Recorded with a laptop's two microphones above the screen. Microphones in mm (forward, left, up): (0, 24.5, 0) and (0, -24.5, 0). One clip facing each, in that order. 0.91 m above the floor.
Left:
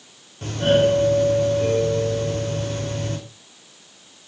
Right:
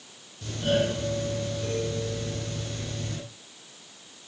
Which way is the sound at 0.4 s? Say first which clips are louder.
Left 8 dB; 50° left (ahead or behind).